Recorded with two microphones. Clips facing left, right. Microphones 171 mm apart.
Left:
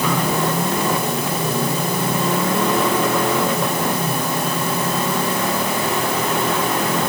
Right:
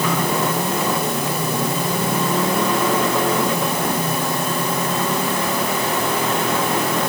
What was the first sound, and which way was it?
Only background noise.